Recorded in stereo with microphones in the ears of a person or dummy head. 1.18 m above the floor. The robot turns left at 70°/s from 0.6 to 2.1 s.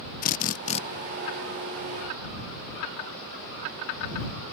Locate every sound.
0.2 s a drill: 45° left (ahead or behind); by 0.8 s 30° left (ahead or behind)